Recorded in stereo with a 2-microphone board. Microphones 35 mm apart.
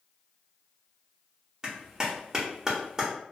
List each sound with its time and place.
1.6 s a clap: 20° right (ahead or behind), 0.8 m